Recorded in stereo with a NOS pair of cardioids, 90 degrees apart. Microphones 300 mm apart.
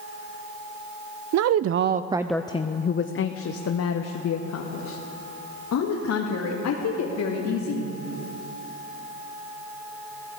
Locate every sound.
1.3 s a woman speaking: 65° right, 0.8 m; by 7.9 s 70° left, 4 m